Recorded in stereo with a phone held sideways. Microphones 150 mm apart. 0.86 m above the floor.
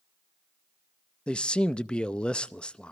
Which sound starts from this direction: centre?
A man speaking, at 1.3 s.